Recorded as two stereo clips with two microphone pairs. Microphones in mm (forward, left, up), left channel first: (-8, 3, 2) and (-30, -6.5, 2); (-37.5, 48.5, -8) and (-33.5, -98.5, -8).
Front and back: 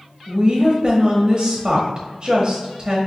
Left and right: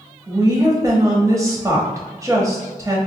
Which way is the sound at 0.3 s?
140° right.